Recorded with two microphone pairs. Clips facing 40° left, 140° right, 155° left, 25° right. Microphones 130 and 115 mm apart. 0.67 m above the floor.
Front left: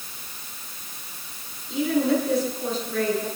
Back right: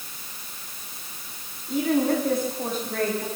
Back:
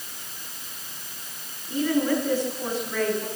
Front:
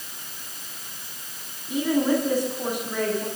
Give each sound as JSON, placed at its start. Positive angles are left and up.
{"t": 1.7, "sound": "a woman speaking", "azimuth_deg": -100, "distance_m": 7.0}